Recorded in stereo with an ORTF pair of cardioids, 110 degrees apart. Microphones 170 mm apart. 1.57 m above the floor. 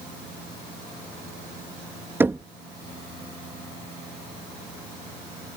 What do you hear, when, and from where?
2.2 s knocking: 15° right